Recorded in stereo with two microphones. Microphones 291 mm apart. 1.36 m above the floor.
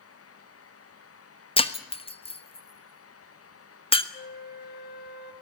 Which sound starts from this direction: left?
A flute, at 4.1 s.